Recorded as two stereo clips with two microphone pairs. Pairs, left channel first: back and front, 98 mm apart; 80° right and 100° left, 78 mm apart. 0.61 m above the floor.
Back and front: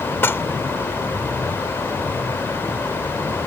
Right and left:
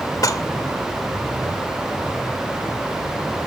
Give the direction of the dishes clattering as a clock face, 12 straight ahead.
4 o'clock.